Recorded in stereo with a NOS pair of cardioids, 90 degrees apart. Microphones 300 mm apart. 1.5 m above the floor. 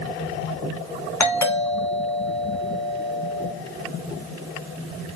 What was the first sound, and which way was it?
A doorbell, 5° left.